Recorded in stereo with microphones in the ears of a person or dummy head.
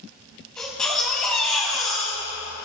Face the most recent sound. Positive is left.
turn(degrees=5)  # may be behind; listen again after turning